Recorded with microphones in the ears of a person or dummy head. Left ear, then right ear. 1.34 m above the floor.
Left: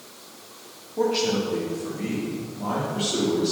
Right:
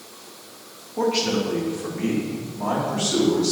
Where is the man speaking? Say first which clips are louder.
Right 1 dB; 10° right (ahead or behind), 1.6 m; by 3.5 s 60° right (ahead or behind), 3.5 m.